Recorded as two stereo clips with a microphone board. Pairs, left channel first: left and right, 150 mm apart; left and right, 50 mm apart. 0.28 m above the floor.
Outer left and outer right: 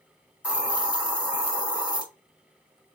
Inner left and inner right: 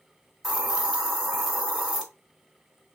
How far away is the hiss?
About 1.3 m.